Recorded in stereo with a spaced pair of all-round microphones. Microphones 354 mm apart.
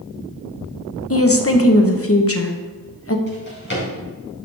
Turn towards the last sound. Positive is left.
turn(degrees=30)  # may be behind; listen again after turning